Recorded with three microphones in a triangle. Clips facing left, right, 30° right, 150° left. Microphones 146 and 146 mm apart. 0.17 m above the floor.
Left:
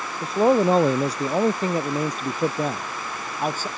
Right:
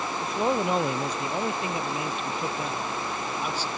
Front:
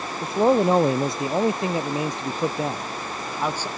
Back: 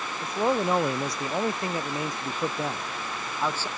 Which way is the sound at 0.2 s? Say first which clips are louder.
Left 9 dB, front 7 dB; 30° left.